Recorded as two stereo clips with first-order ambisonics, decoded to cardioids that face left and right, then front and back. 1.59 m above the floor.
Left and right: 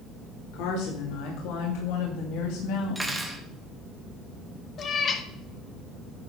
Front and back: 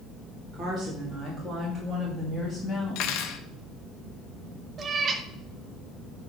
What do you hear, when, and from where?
0.5 s a woman speaking: 95° left, 3 m; by 3.4 s 65° left, 2.5 m
3.0 s cutlery clinking: 10° right, 1.0 m
4.8 s a cat meowing: 130° left, 0.9 m